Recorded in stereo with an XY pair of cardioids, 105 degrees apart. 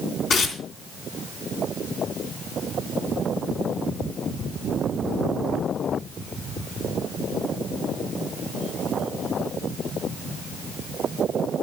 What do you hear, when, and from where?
0.3 s tearing paper: 70° left, 3 m